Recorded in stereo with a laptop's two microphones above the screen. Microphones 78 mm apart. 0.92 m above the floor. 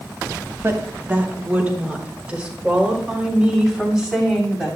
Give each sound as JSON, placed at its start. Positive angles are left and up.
{"t": 0.6, "sound": "a woman speaking", "side_deg": -30, "distance_m": 2.0}